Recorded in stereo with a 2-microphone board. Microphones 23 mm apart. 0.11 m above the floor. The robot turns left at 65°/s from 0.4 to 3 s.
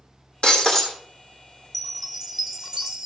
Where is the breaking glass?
50° left, 1.5 m; by 1.0 s 15° left, 1.5 m.